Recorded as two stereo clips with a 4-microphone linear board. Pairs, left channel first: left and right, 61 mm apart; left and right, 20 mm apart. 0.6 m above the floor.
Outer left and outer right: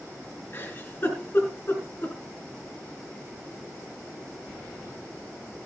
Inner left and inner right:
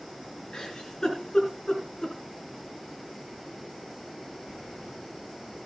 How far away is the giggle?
About 3 m.